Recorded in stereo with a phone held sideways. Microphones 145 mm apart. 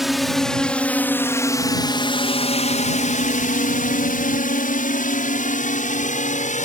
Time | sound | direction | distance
0.0 | a drone | centre (ahead or behind) | ?